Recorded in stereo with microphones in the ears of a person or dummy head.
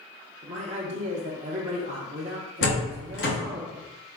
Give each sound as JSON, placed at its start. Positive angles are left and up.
{"t": 0.4, "sound": "a man speaking", "side_deg": -35, "distance_m": 0.6}
{"t": 2.6, "sound": "a door slam", "side_deg": 55, "distance_m": 1.1}